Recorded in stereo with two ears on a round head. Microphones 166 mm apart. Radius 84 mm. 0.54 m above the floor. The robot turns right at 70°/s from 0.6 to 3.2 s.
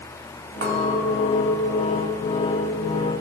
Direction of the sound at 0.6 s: 60° right.